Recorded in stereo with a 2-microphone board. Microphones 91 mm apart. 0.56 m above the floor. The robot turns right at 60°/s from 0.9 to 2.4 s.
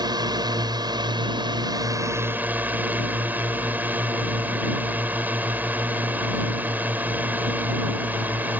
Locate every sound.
0.0 s a drone: 115° right; by 8.6 s 25° right